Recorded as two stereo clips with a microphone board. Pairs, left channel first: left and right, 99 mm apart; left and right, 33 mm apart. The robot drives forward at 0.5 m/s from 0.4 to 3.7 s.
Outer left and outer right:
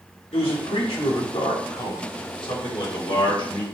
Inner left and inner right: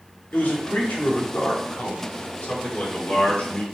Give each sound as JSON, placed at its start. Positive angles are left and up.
{"t": 0.3, "sound": "a man speaking", "side_deg": 70, "distance_m": 2.5}